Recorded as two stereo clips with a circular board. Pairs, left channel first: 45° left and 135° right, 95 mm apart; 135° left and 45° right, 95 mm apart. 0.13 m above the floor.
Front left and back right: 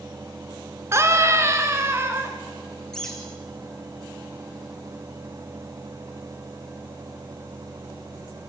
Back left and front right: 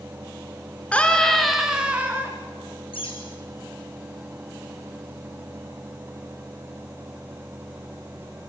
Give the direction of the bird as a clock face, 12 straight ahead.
8 o'clock.